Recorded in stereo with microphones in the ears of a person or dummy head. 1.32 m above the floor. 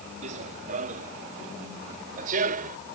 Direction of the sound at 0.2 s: 45° right (ahead or behind).